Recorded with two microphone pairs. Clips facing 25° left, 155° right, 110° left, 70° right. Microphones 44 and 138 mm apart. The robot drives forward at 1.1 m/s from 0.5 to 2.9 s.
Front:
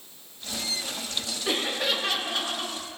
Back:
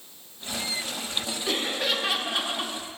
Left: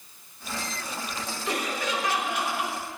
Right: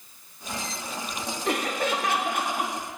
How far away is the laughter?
About 1.9 m.